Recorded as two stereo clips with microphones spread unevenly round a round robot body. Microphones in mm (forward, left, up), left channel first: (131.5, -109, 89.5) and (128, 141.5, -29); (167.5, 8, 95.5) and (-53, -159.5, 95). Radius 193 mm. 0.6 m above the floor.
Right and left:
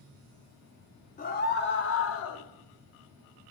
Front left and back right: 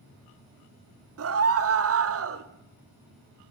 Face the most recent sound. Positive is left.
turn(degrees=-135)